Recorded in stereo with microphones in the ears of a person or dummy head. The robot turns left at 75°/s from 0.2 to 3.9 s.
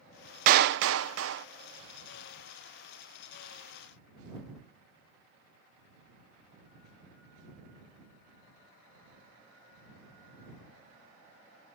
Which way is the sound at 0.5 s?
45° right.